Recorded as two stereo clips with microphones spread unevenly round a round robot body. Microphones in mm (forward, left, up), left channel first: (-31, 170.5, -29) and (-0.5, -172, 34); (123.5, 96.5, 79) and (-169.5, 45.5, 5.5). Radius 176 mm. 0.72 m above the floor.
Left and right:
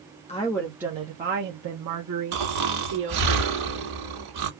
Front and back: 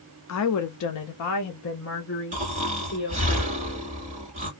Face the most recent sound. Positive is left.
turn(degrees=-95)